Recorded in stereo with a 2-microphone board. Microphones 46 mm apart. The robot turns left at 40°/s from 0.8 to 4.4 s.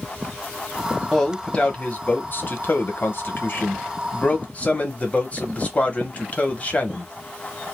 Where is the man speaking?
170° left, 0.8 m; by 7.1 s 40° left, 0.8 m.